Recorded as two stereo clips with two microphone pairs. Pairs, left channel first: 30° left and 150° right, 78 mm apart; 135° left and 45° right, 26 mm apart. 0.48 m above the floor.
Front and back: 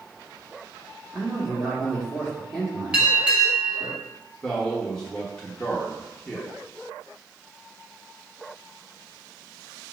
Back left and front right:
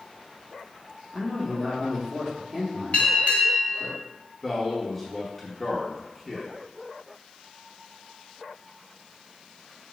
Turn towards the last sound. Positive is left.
turn(degrees=95)